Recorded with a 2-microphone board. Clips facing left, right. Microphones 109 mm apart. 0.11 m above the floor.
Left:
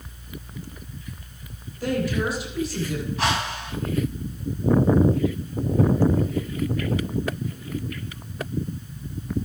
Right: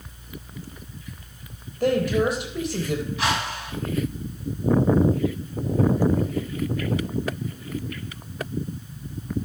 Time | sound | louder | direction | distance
1.8 | a woman speaking | right 4 dB | 50° right (ahead or behind) | 3.5 m
3.2 | a whoosh | left 1 dB | 35° left (ahead or behind) | 7 m